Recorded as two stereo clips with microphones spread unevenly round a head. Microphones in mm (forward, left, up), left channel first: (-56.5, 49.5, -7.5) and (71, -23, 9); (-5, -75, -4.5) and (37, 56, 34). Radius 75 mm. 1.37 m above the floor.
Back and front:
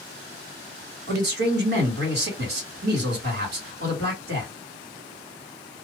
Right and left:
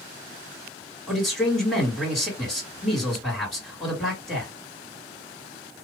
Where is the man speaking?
15° right, 2 m.